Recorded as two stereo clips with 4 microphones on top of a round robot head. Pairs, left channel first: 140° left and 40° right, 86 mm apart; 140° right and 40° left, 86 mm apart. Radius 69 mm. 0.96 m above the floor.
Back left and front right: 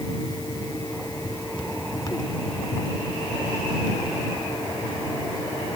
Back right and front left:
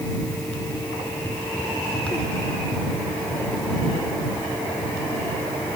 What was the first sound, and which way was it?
Only background noise.